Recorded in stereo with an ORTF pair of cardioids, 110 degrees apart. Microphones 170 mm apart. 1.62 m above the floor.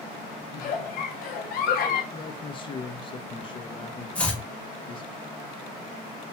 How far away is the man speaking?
About 0.5 m.